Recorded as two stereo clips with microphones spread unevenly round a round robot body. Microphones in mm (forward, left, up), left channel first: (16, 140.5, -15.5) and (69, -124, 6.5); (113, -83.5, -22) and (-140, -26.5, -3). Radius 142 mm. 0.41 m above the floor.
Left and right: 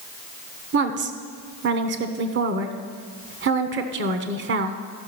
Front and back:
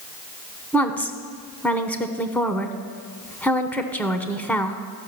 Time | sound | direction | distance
0.7 | a woman speaking | 85° right | 0.9 m